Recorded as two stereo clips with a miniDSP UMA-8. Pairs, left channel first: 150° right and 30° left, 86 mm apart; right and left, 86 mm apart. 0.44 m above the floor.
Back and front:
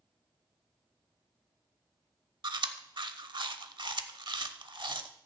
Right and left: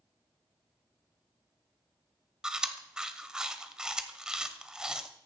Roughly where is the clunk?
I don't hear a clunk.